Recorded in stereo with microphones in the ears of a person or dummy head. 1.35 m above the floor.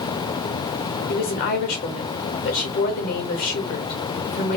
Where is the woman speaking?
50° left (ahead or behind), 1.4 m.